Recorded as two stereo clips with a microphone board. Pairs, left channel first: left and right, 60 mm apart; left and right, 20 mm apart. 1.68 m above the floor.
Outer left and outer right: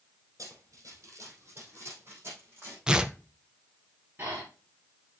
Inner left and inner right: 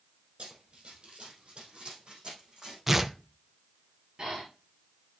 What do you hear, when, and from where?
0.4 s running footsteps: 60° right (ahead or behind), 3.5 m; by 2.8 s 35° right (ahead or behind), 5.5 m
2.9 s tearing paper: 15° right (ahead or behind), 0.8 m
4.2 s breathing: 40° right (ahead or behind), 4.5 m